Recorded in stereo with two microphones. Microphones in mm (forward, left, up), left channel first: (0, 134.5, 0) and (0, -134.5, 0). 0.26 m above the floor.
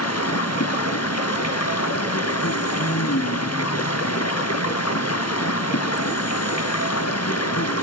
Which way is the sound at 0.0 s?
60° left (ahead or behind).